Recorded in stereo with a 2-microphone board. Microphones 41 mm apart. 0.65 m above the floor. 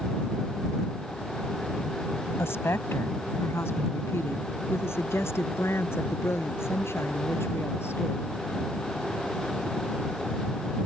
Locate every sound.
2.4 s a woman speaking: 80° left; by 8.3 s 75° left (ahead or behind)